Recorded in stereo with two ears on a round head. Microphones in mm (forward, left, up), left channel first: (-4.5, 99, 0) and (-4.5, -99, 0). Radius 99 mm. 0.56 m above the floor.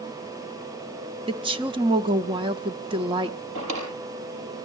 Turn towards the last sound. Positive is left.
turn(degrees=-65)  # may be behind; listen again after turning